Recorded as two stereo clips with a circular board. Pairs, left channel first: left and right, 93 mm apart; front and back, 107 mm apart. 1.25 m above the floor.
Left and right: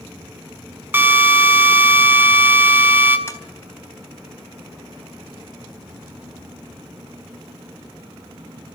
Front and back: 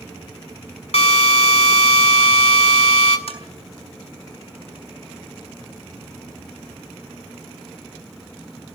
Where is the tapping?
25° left, 4.5 m.